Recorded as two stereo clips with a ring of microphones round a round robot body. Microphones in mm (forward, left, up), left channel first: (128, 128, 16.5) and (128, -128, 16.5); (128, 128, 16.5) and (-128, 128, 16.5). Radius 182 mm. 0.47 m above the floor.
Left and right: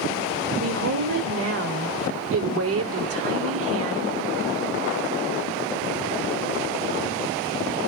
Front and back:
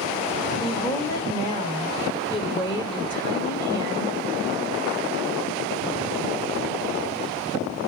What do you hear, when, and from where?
0.6 s a woman speaking: 75° right, 2 m